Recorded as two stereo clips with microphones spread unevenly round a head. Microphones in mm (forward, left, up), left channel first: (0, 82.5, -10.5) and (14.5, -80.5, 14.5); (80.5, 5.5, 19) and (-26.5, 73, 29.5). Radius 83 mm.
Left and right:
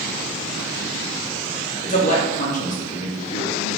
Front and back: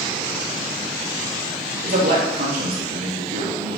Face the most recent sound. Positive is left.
turn(degrees=145)